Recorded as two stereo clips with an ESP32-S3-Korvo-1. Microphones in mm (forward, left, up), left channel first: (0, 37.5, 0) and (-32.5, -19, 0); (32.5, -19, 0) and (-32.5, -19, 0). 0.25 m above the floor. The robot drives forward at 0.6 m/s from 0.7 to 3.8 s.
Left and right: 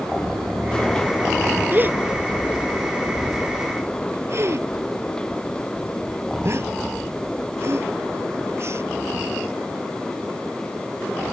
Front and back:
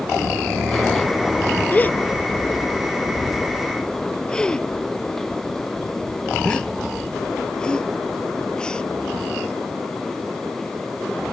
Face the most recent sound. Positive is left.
turn(degrees=-80)